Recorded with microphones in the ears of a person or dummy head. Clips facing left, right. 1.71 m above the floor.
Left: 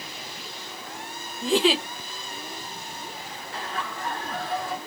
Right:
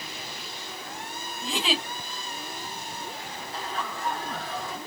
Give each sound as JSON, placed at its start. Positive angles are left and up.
{"t": 1.4, "sound": "a giggle", "side_deg": 40, "distance_m": 1.1}
{"t": 3.5, "sound": "laughter", "side_deg": 55, "distance_m": 2.0}